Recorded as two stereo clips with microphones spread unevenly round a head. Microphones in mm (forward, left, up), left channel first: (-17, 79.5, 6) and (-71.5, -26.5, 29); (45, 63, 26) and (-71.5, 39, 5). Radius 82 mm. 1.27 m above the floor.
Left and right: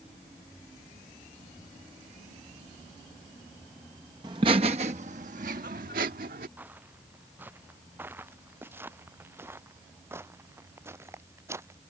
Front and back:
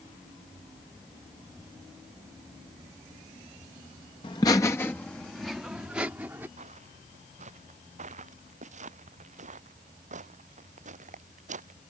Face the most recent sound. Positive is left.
turn(degrees=175)